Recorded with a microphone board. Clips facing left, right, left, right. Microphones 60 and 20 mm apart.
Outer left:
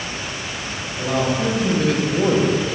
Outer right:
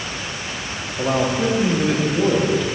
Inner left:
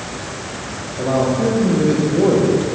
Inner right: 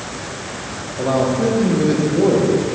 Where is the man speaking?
35° right (ahead or behind), 1.4 m; by 2.6 s 25° left (ahead or behind), 1.1 m.